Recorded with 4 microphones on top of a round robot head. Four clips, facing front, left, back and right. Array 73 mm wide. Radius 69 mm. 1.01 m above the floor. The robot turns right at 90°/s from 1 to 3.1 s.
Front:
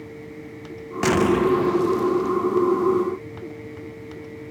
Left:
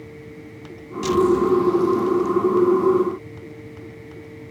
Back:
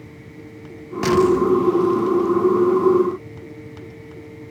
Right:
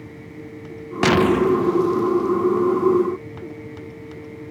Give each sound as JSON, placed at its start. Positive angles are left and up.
{"t": 1.0, "sound": "an explosion", "azimuth_deg": -80}